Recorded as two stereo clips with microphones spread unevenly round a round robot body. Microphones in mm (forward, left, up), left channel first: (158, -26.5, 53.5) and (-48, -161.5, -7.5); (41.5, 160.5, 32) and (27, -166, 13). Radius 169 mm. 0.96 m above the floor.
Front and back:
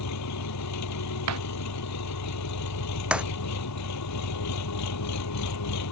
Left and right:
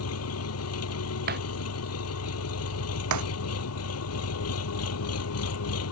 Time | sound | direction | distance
0.0 | an engine running | 45° left | ?
1.3 | breaking glass | 155° right | ?
3.1 | breaking glass | 60° right | ?